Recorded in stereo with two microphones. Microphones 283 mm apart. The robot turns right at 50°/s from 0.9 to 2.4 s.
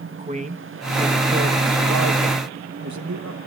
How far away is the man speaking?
About 1.3 m.